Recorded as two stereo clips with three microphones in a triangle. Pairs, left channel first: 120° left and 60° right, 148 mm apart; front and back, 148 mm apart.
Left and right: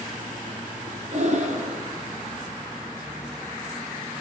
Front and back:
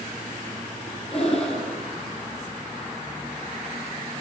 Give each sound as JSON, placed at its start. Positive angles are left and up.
{"t": 1.1, "sound": "breathing", "azimuth_deg": -35, "distance_m": 2.5}